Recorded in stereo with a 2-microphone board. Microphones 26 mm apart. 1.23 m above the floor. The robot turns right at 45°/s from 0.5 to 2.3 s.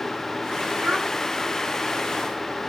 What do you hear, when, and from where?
0.8 s a child speaking: 80° right, 3.5 m; by 1.1 s 70° right (ahead or behind), 3.5 m